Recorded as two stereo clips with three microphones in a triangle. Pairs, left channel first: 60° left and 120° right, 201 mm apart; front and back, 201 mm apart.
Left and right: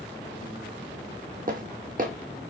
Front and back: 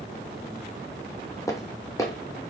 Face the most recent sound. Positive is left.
turn(degrees=-75)